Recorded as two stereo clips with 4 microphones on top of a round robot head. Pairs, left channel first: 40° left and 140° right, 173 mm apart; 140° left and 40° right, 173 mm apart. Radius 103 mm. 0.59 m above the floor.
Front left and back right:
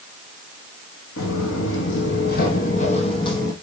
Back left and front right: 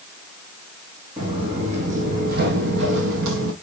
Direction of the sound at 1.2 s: 25° left.